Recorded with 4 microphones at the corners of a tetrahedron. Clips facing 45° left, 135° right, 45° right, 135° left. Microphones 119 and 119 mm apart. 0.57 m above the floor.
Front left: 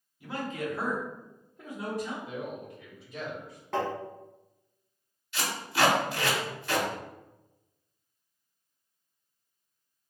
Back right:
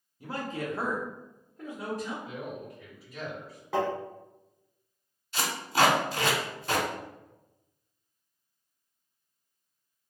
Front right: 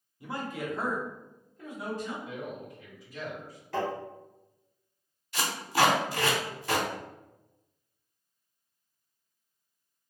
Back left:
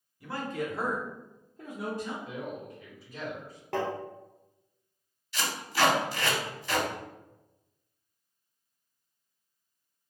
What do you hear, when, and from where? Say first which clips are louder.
0.2 s a man speaking: even, back left 2 dB; 100° right, 0.8 m; by 2.1 s 115° left, 1.2 m
2.2 s a man speaking: front left 1 dB, back left 1 dB; 110° left, 1.8 m
3.7 s tapping: back right 2 dB, even; 140° left, 1.0 m
5.3 s tape being pulled: back right 3 dB, front right 3 dB; 85° right, 0.8 m